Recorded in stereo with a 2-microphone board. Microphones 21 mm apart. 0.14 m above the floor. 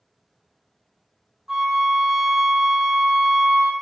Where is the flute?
15° right (ahead or behind), 0.6 m.